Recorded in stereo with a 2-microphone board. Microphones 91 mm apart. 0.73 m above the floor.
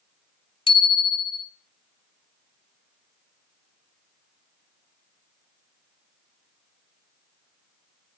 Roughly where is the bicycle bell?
Left.